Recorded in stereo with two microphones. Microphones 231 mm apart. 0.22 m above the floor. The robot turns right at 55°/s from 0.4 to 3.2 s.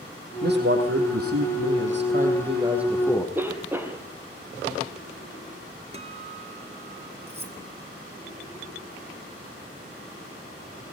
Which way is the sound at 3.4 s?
10° right (ahead or behind).